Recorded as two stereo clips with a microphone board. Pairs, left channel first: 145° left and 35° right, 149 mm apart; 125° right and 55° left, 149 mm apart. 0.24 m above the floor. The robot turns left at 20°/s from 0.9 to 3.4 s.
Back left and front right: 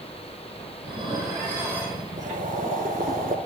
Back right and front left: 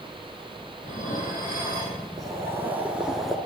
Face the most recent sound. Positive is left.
turn(degrees=-35)